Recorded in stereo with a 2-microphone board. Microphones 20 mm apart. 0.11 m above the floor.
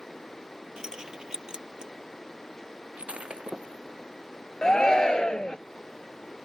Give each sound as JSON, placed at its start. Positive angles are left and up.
{"t": 0.8, "sound": "keys jangling", "side_deg": -30}
{"t": 3.0, "sound": "breaking glass", "side_deg": -70}
{"t": 4.6, "sound": "a shout", "side_deg": 30}